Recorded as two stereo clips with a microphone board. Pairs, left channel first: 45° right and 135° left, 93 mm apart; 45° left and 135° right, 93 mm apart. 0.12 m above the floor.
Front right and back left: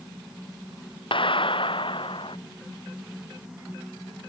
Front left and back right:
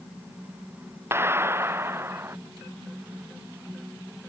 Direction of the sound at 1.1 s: 70° right.